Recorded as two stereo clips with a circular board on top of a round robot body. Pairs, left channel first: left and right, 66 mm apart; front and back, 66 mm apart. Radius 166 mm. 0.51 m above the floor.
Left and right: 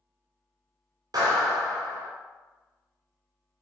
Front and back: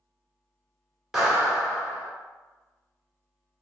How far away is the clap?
About 1.4 m.